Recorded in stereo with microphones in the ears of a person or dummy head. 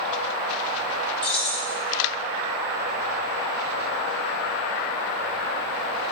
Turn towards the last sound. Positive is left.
turn(degrees=5)  # may be behind; listen again after turning